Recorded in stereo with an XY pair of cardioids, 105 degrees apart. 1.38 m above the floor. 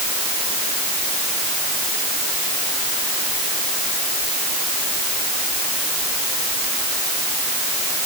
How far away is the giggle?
I don't hear a giggle.